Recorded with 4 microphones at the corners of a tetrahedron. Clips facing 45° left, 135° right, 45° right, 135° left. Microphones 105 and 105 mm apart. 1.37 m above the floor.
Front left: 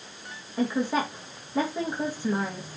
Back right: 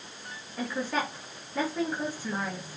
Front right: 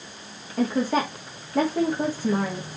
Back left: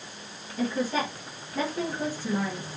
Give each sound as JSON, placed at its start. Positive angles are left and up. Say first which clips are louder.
{"t": 0.6, "sound": "a woman speaking", "louder": "front left 5 dB, front right 4 dB", "azimuth_deg": -25, "distance_m": 3.0}